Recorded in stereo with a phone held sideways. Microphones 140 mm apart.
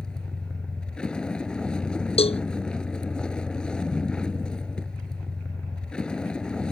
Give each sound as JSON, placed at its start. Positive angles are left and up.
{"t": 0.0, "sound": "a vehicle", "side_deg": 5}
{"t": 2.2, "sound": "a cowbell", "side_deg": 45}